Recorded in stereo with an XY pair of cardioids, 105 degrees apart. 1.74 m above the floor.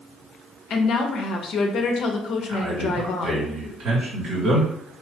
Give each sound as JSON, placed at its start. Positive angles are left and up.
{"t": 0.7, "sound": "a woman speaking", "azimuth_deg": 65, "distance_m": 0.7}
{"t": 2.5, "sound": "a man speaking", "azimuth_deg": -60, "distance_m": 2.0}